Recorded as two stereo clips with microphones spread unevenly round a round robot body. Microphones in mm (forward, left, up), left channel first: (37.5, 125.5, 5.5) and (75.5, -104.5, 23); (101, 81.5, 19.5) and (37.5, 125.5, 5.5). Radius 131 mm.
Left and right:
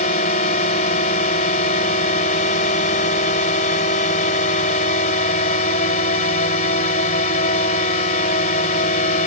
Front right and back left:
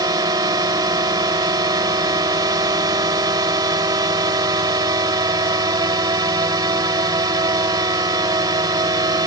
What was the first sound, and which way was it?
A drone, 155° left.